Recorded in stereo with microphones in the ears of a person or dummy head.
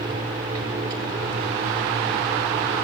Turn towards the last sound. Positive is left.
turn(degrees=-25)  # may be behind; listen again after turning